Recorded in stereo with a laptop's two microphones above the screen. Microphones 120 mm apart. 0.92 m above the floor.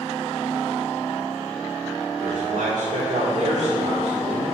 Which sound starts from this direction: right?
A man speaking, at 2.2 s.